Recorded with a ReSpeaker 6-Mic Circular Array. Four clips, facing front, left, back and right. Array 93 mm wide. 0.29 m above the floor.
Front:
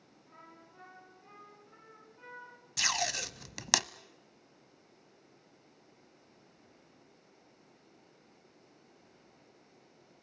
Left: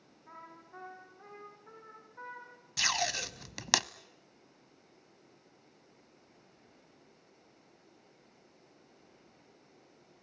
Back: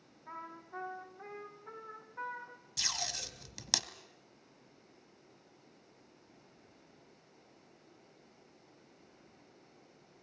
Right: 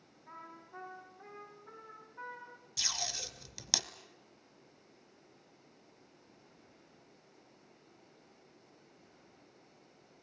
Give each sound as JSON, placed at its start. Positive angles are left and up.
{"t": 0.3, "sound": "a trumpet", "azimuth_deg": 170, "distance_m": 6.5}
{"t": 2.8, "sound": "tape being pulled", "azimuth_deg": 55, "distance_m": 0.9}